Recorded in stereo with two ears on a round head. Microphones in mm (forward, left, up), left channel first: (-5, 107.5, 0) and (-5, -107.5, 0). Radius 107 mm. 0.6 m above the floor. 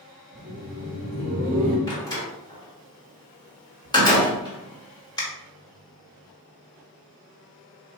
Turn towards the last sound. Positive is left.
turn(degrees=15)  # may be behind; listen again after turning